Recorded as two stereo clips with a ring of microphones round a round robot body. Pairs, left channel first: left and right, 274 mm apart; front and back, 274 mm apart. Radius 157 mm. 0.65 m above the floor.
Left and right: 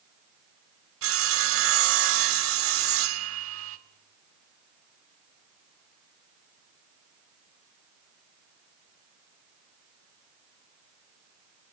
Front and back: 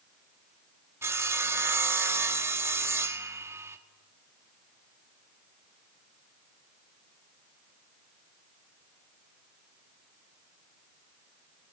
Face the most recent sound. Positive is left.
turn(degrees=-100)